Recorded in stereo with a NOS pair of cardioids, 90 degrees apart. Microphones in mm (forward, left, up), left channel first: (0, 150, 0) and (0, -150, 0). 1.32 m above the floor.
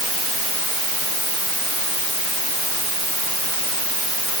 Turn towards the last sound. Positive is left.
No sound to turn to.